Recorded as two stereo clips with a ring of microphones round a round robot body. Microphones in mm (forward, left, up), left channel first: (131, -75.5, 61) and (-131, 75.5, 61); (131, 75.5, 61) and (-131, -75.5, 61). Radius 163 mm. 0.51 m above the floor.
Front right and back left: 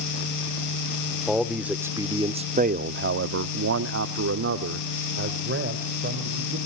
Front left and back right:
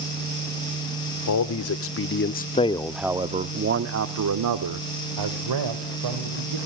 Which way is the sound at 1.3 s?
60° left.